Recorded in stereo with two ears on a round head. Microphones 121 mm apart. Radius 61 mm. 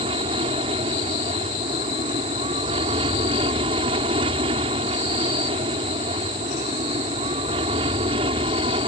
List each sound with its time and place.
0.0 s an aircraft: 40° right (ahead or behind)